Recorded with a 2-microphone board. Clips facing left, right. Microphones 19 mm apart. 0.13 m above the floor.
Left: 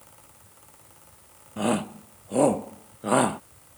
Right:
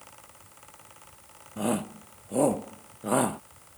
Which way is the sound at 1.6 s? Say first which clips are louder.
Left 3 dB; 20° left (ahead or behind).